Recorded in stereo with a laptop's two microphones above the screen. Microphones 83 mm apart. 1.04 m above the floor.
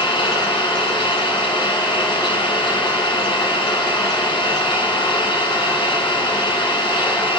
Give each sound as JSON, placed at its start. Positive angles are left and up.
{"t": 0.0, "sound": "an engine running", "side_deg": 85, "distance_m": 6.5}